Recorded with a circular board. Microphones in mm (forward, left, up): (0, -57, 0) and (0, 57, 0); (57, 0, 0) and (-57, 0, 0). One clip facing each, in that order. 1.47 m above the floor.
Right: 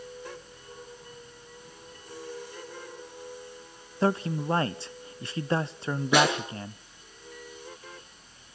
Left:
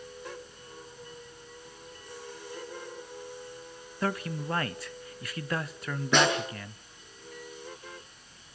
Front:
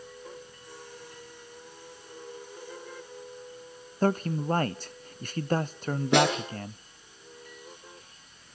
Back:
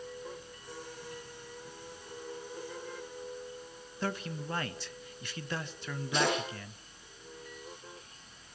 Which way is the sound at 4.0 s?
35° right.